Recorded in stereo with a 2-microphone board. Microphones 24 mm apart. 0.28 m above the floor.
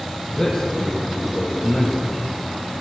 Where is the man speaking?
20° left (ahead or behind), 8.5 m; by 2.1 s 15° left (ahead or behind), 8.5 m.